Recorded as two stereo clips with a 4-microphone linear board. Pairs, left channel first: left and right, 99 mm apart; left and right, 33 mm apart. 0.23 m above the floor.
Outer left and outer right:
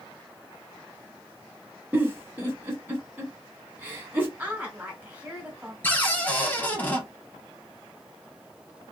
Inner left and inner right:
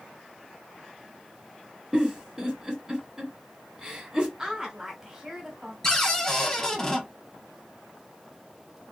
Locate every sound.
1.9 s a giggle: 20° right (ahead or behind), 1.5 m
4.4 s a woman speaking: 15° right (ahead or behind), 1.0 m
5.8 s a cupboard door: 15° left (ahead or behind), 0.8 m